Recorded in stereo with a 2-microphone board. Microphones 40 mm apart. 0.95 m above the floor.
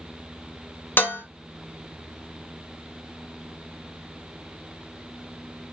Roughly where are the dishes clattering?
Left.